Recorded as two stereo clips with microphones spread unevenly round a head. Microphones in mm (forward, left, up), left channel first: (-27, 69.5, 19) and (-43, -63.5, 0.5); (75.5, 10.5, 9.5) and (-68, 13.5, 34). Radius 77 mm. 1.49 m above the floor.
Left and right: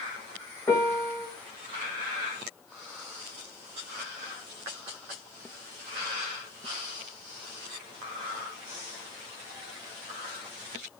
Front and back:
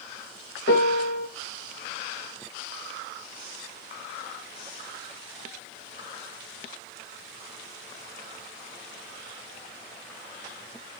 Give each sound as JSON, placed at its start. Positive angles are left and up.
{"t": 0.7, "sound": "a piano", "azimuth_deg": 5, "distance_m": 1.4}